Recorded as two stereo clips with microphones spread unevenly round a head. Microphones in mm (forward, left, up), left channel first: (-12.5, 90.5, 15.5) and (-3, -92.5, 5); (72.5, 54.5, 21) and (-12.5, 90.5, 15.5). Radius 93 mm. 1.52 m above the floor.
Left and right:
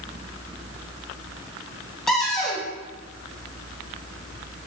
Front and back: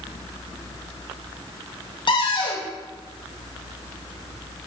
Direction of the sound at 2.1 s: 5° left.